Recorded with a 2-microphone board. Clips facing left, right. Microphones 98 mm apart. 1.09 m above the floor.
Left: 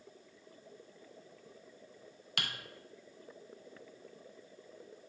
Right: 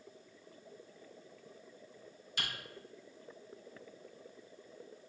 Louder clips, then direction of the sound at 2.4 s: Left 1 dB; 70° left (ahead or behind).